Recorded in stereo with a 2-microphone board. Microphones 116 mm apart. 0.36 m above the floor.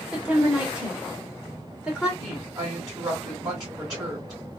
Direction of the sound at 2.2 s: 30° right (ahead or behind).